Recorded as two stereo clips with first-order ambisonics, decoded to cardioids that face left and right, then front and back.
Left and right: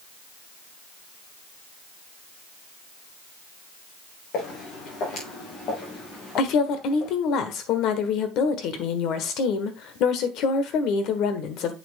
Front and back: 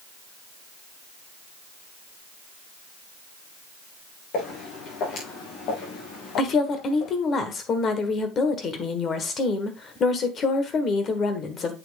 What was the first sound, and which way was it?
Footsteps, 45° left.